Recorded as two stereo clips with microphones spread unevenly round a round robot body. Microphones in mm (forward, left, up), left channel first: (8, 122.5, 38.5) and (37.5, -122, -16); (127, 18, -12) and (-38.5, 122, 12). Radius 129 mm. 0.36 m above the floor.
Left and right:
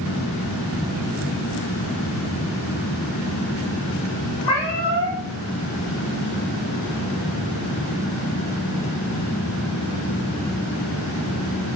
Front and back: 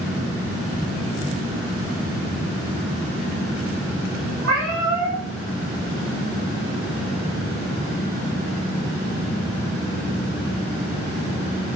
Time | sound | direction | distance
4.4 | a cat meowing | 135° left | 4 m